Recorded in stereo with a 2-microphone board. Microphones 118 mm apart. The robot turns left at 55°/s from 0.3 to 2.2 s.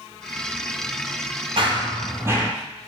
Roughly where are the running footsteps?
Behind right.